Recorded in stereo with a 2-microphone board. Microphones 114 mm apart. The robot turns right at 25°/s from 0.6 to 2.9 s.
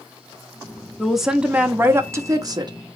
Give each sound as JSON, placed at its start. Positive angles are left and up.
{"t": 1.0, "sound": "a woman speaking", "azimuth_deg": 180, "distance_m": 0.5}